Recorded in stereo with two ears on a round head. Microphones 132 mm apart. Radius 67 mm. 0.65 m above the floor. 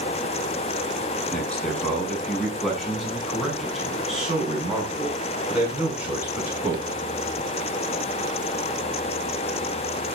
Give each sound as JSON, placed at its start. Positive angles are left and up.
{"t": 1.3, "sound": "a man speaking", "side_deg": 10, "distance_m": 6.5}